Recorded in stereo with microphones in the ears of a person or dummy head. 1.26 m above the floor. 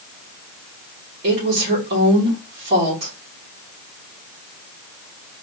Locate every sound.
1.2 s a woman speaking: 60° right (ahead or behind), 2.5 m